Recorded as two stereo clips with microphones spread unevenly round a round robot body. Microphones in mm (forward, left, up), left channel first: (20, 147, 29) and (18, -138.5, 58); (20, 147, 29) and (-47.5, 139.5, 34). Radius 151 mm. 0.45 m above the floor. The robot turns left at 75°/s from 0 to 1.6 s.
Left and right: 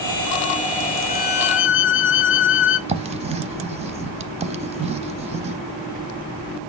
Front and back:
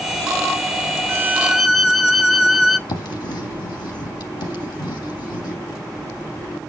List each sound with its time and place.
1.1 s a violin: 135° left, 0.8 m; by 2.8 s 95° left, 0.8 m
2.9 s writing: 20° right, 0.7 m